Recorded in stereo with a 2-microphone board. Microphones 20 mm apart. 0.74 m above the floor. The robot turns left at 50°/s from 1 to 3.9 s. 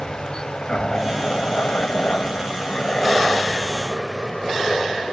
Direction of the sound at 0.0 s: 35° left (ahead or behind).